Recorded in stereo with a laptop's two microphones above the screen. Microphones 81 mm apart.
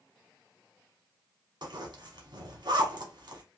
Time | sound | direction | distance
1.6 | a zipper | 60° right (ahead or behind) | 0.9 m